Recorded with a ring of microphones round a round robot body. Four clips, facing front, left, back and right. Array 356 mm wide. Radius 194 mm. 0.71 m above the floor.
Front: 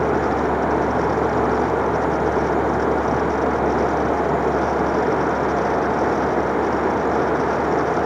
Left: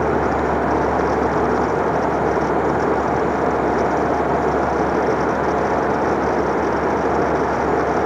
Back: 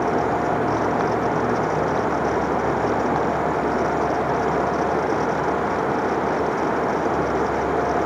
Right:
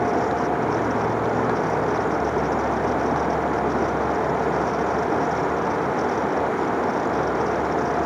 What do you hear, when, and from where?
Only background noise.